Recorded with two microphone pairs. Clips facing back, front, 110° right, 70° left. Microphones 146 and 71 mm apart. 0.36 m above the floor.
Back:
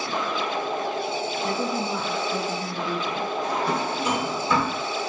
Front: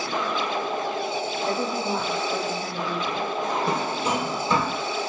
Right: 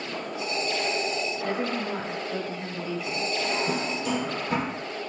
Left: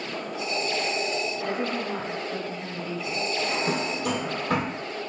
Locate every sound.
1.4 s a woman speaking: 25° right, 1.2 m
3.4 s a drawer: 60° left, 1.4 m